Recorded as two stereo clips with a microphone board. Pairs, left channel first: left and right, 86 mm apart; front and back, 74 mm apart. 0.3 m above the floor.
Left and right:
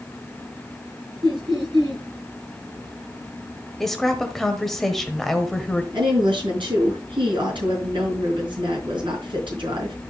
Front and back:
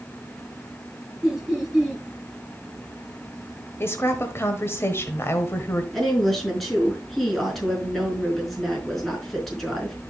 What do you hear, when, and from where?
1.2 s laughter: 95° right, 3 m
3.8 s a woman speaking: 5° left, 1.2 m
5.9 s a woman speaking: 90° right, 4.5 m